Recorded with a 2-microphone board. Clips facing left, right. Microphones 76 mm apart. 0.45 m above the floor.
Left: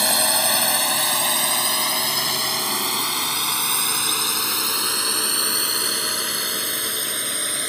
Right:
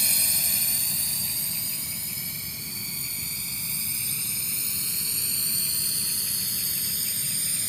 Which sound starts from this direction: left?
A drone, at 0.0 s.